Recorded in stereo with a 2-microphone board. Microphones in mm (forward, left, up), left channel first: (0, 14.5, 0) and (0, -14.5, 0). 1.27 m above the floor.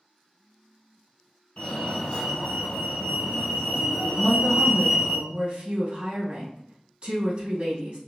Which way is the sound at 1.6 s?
40° left (ahead or behind).